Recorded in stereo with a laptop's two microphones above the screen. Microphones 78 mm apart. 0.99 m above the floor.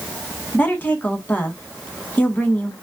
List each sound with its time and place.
0.5 s a woman speaking: 25° left (ahead or behind), 1.5 m